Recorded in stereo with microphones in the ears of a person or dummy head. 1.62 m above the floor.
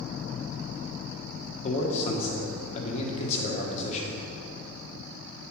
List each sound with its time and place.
1.6 s a man speaking: 30° left (ahead or behind), 1.2 m